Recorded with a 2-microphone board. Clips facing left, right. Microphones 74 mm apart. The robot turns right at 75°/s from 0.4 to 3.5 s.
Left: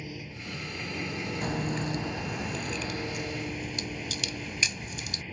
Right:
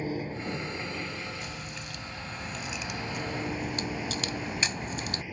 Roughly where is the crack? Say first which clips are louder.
Left 9 dB; left.